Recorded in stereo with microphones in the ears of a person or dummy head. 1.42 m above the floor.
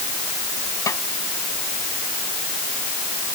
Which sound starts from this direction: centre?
A snare drum, at 0.9 s.